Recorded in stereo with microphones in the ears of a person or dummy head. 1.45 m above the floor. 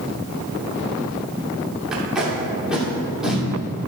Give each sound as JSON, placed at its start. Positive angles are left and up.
{"t": 1.9, "sound": "tape being pulled", "side_deg": -5, "distance_m": 2.5}